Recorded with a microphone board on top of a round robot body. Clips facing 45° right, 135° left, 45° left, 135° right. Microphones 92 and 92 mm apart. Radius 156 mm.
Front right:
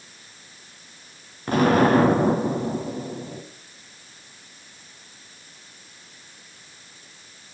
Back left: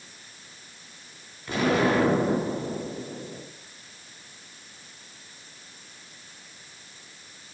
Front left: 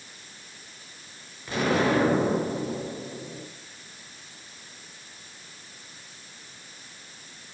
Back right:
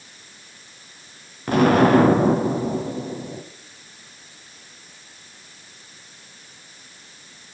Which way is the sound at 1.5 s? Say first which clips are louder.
Front right 5 dB, back right 9 dB; 95° right.